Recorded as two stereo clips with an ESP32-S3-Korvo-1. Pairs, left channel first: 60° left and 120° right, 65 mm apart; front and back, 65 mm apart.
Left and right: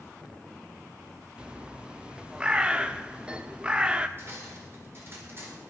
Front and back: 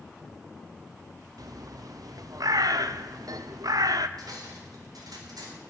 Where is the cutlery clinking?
170° right, 3.5 m.